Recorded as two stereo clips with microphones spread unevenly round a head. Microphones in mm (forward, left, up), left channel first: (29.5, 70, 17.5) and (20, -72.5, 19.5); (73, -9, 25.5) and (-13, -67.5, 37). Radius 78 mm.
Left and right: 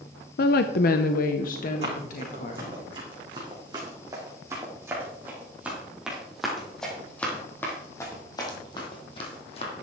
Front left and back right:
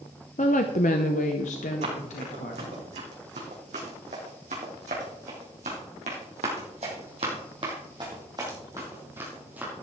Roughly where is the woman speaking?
Left.